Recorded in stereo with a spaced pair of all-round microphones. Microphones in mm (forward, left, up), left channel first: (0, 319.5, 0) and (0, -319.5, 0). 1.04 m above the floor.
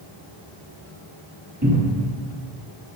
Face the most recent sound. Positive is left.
turn(degrees=-25)  # may be behind; listen again after turning